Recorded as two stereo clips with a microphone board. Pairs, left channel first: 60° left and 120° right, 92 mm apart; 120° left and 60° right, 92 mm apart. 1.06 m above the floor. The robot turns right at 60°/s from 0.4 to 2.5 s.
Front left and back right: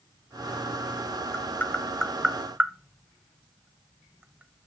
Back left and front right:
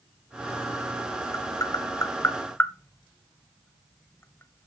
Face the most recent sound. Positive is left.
turn(degrees=170)